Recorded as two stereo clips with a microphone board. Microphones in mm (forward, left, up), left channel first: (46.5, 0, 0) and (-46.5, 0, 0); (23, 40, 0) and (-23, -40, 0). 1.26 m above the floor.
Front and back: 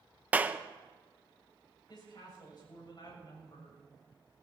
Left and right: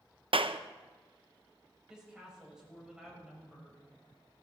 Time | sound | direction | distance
0.3 | a clap | 110° right | 0.6 m
1.9 | a woman speaking | 40° right | 7.5 m